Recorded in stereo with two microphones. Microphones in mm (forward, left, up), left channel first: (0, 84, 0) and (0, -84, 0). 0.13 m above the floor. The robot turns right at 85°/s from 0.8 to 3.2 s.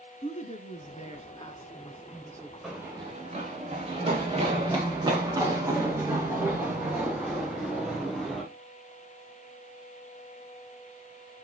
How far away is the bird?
I don't hear a bird.